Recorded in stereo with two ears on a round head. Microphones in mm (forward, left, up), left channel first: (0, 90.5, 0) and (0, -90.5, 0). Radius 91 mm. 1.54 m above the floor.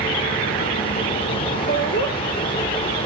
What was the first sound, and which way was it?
Laughter, 55° left (ahead or behind).